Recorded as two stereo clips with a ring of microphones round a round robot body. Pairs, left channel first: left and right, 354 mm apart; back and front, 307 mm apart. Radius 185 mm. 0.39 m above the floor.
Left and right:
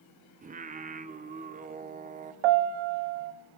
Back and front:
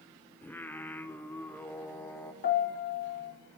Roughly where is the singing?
Right.